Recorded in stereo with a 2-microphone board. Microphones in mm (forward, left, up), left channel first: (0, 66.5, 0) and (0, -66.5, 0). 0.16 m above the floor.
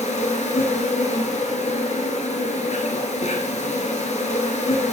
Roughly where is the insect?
Left.